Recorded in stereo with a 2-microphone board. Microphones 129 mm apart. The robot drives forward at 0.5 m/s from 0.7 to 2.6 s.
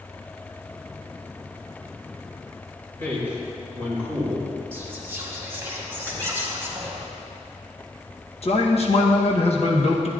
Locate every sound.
3.0 s a man speaking: 15° left (ahead or behind), 3 m
4.7 s whispering: 20° right (ahead or behind), 1.9 m
6.0 s a squeak: 15° left (ahead or behind), 1.8 m
8.4 s a man speaking: 50° left (ahead or behind), 1.1 m